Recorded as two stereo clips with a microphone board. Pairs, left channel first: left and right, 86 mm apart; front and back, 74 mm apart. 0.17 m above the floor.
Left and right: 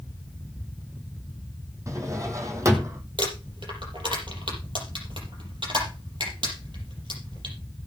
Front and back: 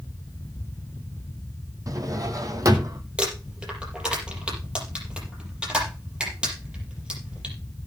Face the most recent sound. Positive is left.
turn(degrees=-105)